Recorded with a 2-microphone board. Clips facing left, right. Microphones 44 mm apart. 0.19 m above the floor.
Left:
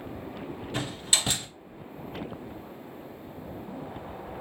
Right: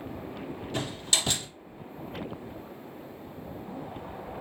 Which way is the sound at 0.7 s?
20° left (ahead or behind).